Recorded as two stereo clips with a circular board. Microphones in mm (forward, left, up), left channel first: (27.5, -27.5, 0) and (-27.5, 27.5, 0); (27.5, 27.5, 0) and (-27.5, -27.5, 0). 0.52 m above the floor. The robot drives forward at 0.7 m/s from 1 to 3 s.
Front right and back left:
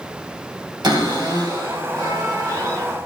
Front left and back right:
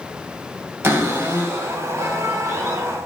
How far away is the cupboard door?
About 1.1 m.